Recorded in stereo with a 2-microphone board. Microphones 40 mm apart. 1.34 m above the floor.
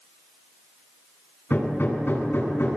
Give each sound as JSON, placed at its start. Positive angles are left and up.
{"t": 1.5, "sound": "hammering", "side_deg": 60, "distance_m": 9.0}